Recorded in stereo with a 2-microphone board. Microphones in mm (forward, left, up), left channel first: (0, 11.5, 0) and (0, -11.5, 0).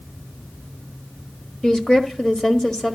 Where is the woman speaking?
35° left (ahead or behind), 1.3 m.